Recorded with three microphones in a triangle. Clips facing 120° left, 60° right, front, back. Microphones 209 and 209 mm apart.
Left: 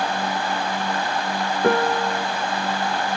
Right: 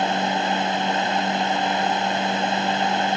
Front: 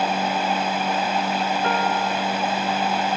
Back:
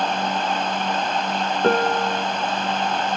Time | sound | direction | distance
1.6 | a piano | 135° left | ?